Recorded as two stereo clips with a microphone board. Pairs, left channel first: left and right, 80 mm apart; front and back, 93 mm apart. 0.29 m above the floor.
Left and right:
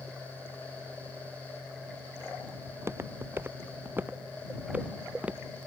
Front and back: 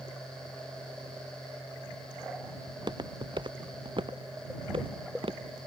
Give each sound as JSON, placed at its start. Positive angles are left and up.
{"t": 2.7, "sound": "footsteps", "azimuth_deg": -145}